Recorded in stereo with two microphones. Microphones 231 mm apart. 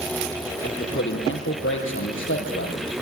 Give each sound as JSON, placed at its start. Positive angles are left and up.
{"t": 0.6, "sound": "a man speaking", "side_deg": 60, "distance_m": 5.0}